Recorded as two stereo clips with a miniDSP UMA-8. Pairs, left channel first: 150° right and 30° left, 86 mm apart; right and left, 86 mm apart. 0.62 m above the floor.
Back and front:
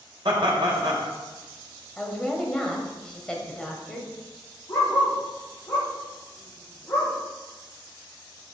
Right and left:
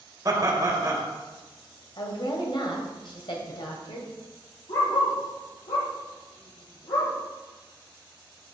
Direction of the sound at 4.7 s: 90° right.